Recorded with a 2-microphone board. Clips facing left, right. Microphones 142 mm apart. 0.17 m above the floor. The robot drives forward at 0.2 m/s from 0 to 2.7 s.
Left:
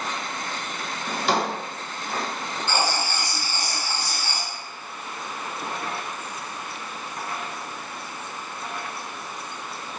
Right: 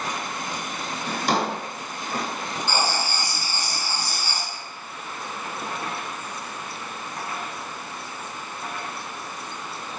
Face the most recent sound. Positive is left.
turn(degrees=-15)  # may be behind; listen again after turning